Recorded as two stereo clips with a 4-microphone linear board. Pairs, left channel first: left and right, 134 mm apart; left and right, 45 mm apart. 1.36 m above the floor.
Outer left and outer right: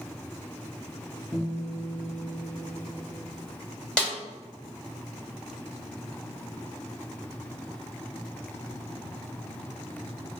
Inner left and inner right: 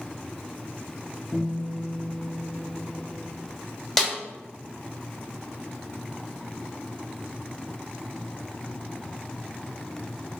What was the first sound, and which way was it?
A guitar, 20° left (ahead or behind).